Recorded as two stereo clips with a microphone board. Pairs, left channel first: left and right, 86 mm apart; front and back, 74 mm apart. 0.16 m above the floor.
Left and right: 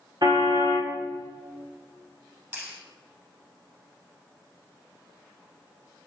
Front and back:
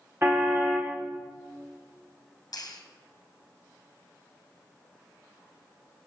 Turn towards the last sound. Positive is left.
turn(degrees=-30)